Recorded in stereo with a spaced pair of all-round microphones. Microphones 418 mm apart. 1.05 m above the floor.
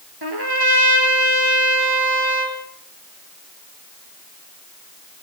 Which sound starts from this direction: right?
A trumpet, at 0.2 s.